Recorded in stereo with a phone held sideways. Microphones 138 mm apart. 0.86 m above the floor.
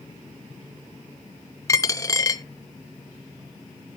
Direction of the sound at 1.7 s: 25° left (ahead or behind).